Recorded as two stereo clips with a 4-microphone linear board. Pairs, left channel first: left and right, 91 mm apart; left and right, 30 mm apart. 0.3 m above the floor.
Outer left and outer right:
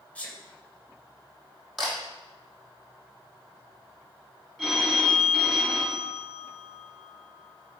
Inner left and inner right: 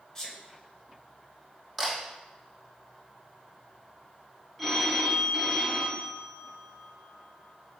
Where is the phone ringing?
Centre (ahead or behind), 2.0 m.